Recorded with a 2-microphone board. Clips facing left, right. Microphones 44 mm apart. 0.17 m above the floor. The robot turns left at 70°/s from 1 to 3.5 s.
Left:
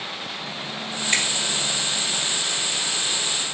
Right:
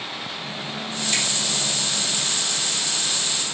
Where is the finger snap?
45° left (ahead or behind), 2.5 m; by 1.3 s 55° left (ahead or behind), 2.5 m.